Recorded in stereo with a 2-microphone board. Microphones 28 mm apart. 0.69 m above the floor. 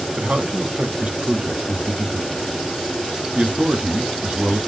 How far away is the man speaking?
About 1.0 m.